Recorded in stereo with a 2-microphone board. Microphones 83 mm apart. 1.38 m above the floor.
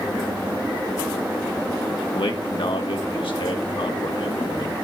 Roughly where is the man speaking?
Left.